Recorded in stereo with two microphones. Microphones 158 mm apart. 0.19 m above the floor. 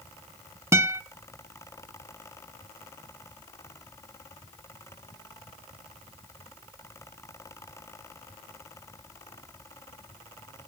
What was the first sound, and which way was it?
A guitar, 20° right (ahead or behind).